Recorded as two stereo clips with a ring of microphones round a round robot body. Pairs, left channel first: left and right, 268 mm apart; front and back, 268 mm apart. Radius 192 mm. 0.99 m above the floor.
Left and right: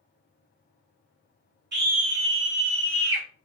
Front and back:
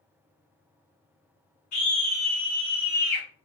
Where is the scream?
40° right, 2.5 m; by 3.3 s 55° right, 1.7 m.